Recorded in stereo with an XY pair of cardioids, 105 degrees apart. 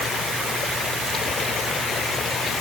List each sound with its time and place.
Only background noise.